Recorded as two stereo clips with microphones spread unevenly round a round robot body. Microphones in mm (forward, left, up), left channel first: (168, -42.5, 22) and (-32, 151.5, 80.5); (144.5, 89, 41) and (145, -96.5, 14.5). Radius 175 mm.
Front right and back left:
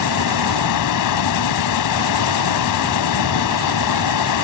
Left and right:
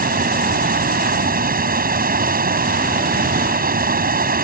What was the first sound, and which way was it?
Running water, 50° right.